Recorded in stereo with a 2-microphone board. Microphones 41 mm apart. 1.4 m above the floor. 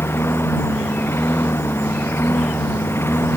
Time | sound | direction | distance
0.0 | a lawn mower | 75° left (ahead or behind) | ?